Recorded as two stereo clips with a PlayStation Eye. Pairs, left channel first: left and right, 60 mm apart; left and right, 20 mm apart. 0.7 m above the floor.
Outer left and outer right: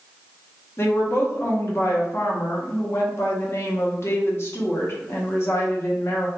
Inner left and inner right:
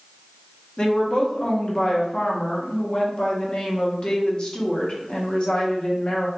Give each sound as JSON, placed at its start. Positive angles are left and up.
{"t": 0.8, "sound": "a woman speaking", "side_deg": 45, "distance_m": 0.8}